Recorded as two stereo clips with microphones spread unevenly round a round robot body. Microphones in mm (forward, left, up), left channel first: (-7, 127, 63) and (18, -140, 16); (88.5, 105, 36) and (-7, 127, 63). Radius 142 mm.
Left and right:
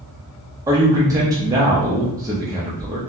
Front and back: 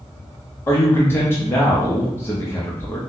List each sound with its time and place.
0.7 s a man speaking: 30° right, 0.6 m